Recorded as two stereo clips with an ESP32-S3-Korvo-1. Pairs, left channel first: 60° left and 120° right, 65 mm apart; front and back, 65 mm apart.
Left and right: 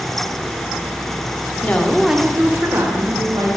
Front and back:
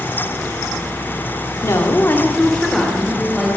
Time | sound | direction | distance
1.6 | a woman speaking | 10° left | 1.0 m